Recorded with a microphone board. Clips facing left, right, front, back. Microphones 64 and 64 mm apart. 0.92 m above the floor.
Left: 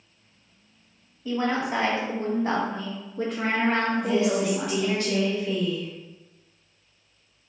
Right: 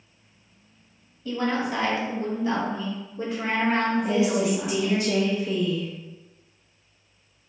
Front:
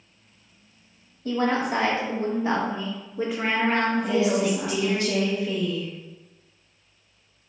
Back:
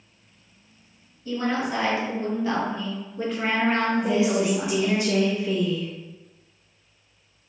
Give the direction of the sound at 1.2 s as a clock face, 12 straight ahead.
12 o'clock.